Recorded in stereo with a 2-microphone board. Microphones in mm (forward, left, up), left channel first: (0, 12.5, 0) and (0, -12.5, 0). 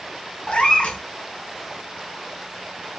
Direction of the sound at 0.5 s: 55° left (ahead or behind).